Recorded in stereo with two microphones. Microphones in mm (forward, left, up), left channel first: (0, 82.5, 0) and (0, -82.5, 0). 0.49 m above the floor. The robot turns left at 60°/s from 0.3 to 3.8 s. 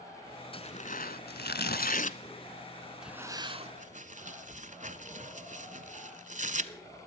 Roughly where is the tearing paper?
Left.